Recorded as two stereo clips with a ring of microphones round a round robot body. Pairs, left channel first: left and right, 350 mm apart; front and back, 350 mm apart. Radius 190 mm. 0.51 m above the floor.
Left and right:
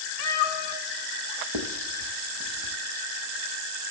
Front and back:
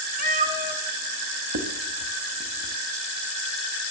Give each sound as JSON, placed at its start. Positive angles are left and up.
{"t": 0.2, "sound": "a cat meowing", "azimuth_deg": 115, "distance_m": 1.2}
{"t": 1.5, "sound": "writing", "azimuth_deg": -130, "distance_m": 0.8}